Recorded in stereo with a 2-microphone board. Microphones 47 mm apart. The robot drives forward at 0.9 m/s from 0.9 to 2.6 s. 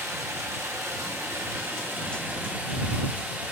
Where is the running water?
85° right, 1.4 m; by 3.5 s 45° right (ahead or behind), 2 m.